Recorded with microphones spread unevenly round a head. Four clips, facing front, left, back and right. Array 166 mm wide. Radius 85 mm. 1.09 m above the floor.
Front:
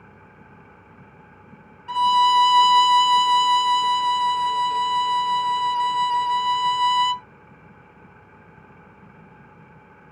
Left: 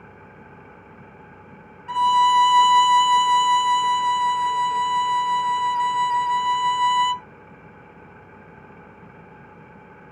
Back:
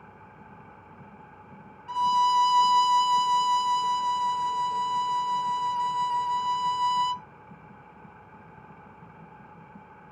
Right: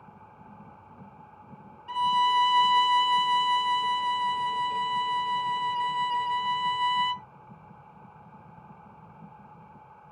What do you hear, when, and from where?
0.0 s an engine running: 80° left
1.9 s a violin: 20° left